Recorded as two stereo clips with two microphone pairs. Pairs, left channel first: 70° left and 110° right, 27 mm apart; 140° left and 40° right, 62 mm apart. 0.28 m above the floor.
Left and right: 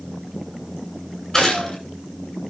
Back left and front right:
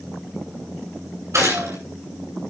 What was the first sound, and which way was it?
A gunshot, straight ahead.